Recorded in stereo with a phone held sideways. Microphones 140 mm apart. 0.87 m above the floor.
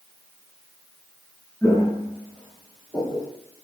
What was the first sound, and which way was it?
Footsteps, 25° left (ahead or behind).